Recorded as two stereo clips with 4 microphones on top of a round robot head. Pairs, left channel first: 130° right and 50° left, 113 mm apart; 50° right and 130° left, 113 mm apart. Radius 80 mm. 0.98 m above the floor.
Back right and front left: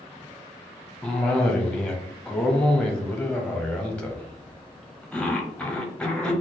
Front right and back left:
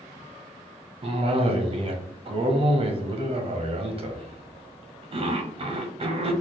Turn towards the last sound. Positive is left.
turn(degrees=150)